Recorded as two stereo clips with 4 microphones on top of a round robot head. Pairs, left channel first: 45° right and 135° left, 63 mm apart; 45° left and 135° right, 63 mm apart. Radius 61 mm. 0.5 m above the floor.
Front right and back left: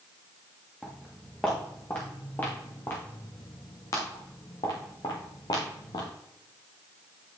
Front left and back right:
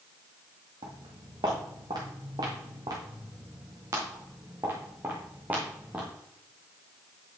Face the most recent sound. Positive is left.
turn(degrees=-60)